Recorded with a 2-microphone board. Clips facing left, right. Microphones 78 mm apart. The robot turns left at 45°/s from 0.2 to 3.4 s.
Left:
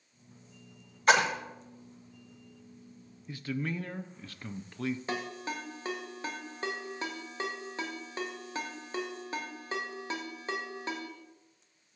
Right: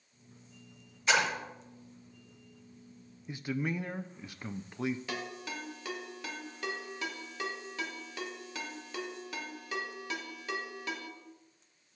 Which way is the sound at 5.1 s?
35° left (ahead or behind).